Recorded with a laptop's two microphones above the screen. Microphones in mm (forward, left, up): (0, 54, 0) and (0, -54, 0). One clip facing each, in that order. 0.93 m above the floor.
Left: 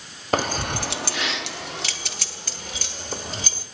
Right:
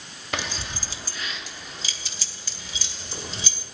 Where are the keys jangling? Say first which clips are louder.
Left 9 dB; 45° left (ahead or behind), 0.8 m; by 3.6 s 50° left (ahead or behind), 2.5 m.